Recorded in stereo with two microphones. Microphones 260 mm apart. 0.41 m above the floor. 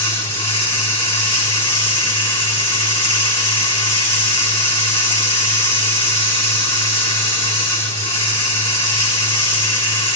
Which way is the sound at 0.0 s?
20° left (ahead or behind).